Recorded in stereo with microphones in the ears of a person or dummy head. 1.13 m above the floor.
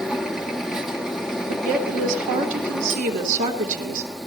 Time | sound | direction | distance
0.0 | a machine running | centre (ahead or behind) | 1.4 m
1.5 | a woman speaking | 45° right (ahead or behind) | 3.5 m